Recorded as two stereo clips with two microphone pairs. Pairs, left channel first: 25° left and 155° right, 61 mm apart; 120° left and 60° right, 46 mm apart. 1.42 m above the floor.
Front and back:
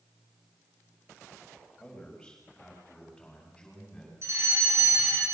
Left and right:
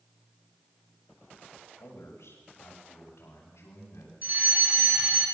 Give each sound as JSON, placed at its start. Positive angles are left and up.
{"t": 1.8, "sound": "a man speaking", "azimuth_deg": 105, "distance_m": 8.5}
{"t": 4.2, "sound": "a fire alarm", "azimuth_deg": -110, "distance_m": 7.0}